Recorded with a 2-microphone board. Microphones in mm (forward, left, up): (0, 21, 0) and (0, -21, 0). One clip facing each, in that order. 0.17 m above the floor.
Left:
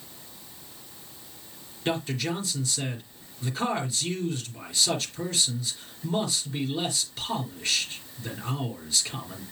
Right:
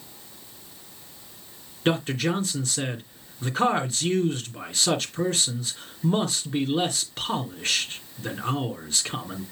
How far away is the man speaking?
About 2.5 m.